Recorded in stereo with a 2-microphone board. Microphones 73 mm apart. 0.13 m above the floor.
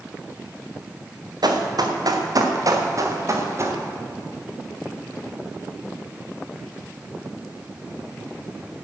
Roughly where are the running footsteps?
Right.